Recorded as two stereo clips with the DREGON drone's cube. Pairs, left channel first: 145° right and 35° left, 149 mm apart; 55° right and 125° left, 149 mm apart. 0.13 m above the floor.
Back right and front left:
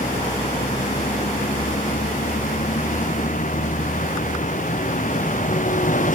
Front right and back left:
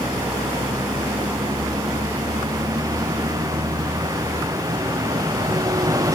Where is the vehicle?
170° right.